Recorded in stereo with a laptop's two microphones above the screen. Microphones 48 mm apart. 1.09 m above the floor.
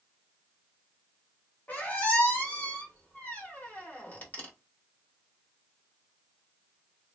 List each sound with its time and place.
1.7 s a squeak: 35° left (ahead or behind), 1.3 m